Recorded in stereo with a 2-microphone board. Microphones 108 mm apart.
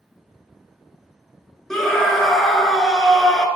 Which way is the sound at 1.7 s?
5° left (ahead or behind).